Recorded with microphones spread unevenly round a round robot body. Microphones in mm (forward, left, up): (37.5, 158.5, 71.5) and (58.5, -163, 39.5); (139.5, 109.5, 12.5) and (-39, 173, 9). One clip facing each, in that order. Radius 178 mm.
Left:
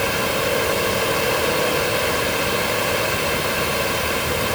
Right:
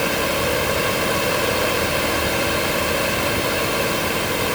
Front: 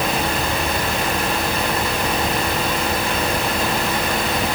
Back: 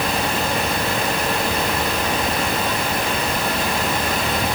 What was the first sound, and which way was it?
Only background noise.